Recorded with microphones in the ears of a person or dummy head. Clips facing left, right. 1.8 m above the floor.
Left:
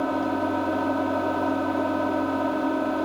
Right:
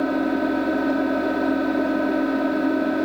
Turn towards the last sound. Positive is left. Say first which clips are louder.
# right 4 dB
turn(degrees=-30)  # may be behind; listen again after turning